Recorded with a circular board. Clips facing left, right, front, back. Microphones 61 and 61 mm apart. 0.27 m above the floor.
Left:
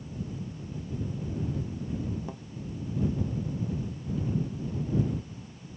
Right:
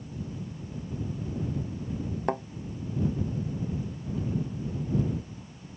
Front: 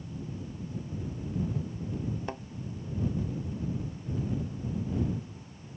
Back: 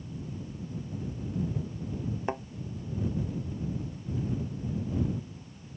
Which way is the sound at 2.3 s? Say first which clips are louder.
Right 12 dB, back 5 dB; 110° right.